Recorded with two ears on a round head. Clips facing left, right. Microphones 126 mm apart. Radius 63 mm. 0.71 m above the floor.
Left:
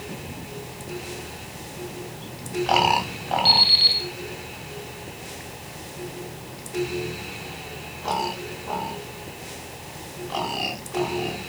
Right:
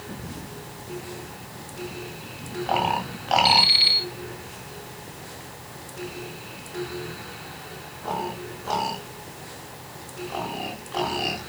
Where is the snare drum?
I don't hear a snare drum.